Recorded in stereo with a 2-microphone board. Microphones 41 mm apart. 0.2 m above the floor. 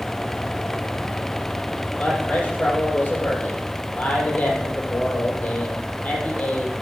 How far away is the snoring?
I don't hear snoring.